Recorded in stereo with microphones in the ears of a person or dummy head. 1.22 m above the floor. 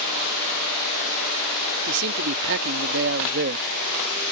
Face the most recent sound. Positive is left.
turn(degrees=-50)  # may be behind; listen again after turning